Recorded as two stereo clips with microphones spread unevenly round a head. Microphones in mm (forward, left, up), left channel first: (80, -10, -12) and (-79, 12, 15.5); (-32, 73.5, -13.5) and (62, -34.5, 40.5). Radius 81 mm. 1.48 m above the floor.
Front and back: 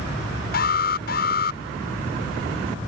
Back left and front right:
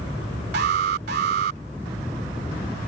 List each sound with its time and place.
0.5 s an alarm: 40° right